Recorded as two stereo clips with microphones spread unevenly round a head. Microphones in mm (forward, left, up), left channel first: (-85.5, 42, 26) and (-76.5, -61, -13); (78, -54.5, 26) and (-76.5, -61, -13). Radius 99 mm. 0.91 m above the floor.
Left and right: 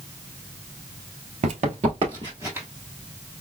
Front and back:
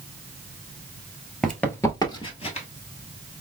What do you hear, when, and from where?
1.4 s running footsteps: 65° right, 1.1 m; by 2.7 s 5° left, 1.4 m